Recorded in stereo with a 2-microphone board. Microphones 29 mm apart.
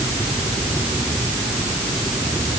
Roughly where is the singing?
I don't hear singing.